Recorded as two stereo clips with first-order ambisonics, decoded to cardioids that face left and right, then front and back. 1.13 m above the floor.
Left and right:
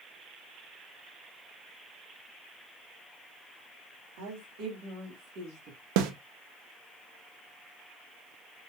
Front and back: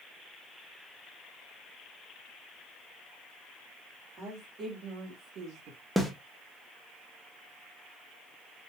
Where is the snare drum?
90° right, 0.9 m.